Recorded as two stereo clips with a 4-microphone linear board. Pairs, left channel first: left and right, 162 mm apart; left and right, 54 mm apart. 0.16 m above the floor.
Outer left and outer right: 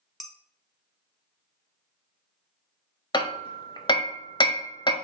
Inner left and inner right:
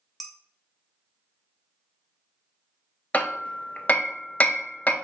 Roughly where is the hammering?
Left.